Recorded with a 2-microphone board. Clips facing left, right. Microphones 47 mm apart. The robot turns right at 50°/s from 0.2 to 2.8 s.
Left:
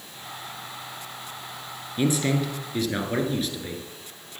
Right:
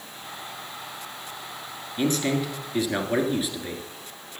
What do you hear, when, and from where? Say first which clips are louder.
2.0 s a man speaking: left 1 dB; 10° left (ahead or behind), 1.3 m; by 3.9 s 10° right (ahead or behind), 1.3 m